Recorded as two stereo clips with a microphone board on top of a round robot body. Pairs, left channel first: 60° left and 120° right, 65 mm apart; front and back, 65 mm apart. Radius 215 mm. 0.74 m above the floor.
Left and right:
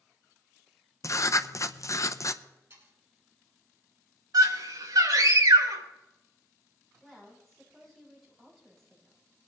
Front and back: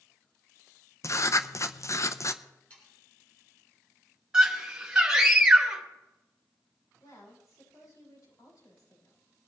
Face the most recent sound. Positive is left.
turn(degrees=-30)